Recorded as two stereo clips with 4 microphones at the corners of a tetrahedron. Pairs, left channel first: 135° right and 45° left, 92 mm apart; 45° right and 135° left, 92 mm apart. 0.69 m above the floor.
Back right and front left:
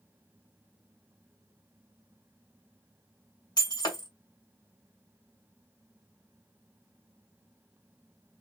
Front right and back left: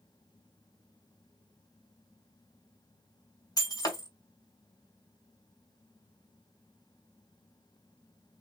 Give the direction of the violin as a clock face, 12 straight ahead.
I don't hear a violin.